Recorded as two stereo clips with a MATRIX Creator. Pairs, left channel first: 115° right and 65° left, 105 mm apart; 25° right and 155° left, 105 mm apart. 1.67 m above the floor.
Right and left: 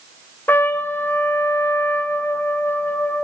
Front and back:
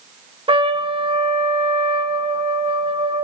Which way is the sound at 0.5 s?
Straight behind.